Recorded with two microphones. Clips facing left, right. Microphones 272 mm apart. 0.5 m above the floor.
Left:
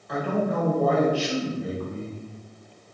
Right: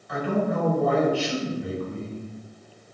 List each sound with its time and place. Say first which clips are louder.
0.1 s a man speaking: right 1 dB; 45° left (ahead or behind), 1.9 m